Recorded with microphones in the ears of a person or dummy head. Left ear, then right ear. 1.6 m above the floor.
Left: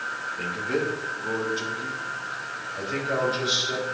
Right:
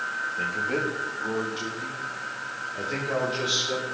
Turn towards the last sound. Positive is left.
turn(degrees=-15)  # may be behind; listen again after turning